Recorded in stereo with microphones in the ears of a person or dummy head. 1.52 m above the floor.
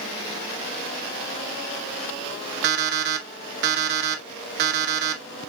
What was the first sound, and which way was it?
An alarm clock, 65° right (ahead or behind).